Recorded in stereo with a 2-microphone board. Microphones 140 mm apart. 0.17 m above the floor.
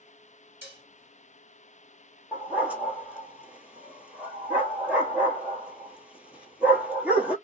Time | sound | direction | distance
0.6 | dishes clattering | 15° right (ahead or behind) | 1.5 m
2.3 | a dog barking | 10° right (ahead or behind) | 0.9 m